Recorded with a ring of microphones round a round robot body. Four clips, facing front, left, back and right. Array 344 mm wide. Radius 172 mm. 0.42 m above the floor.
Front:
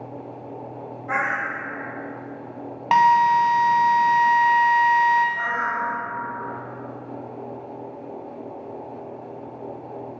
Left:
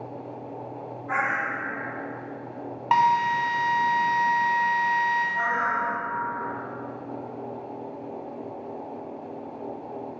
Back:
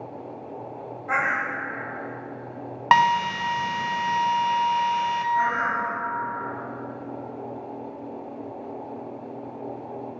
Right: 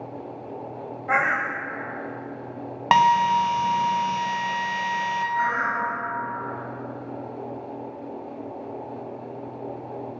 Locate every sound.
1.1 s a bird: 95° right, 1.0 m
2.9 s a drill: 115° right, 0.7 m
5.3 s a bird: 140° right, 1.3 m